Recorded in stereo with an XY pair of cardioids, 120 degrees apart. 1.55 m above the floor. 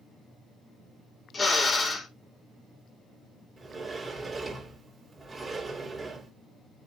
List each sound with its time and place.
1.3 s a drill: 30° left, 2.5 m
3.6 s a sliding door: 25° right, 3 m